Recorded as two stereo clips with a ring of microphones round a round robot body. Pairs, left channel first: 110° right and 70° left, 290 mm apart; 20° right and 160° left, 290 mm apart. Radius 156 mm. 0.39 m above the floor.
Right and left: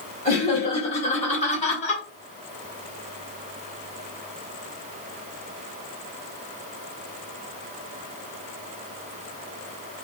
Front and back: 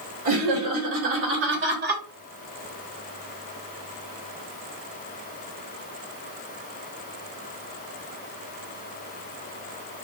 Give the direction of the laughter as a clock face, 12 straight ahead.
6 o'clock.